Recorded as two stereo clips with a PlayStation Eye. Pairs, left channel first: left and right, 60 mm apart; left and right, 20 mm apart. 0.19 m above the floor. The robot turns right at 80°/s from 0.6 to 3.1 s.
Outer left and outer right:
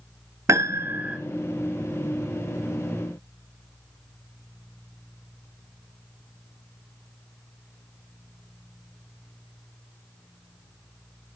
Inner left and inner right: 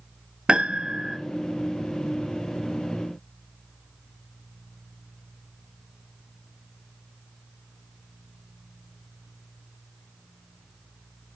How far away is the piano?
About 0.9 m.